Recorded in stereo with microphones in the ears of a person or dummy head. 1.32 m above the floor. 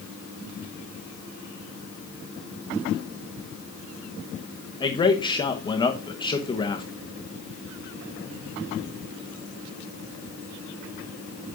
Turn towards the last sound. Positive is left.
turn(degrees=25)  # may be behind; listen again after turning